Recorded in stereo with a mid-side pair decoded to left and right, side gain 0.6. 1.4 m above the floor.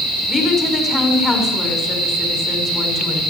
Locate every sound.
0.3 s a woman speaking: 25° left, 5.5 m